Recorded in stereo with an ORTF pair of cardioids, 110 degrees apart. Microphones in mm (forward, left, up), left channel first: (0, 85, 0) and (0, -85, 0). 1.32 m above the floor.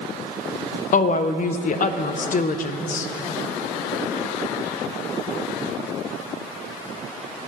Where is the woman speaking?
50° left, 0.5 m.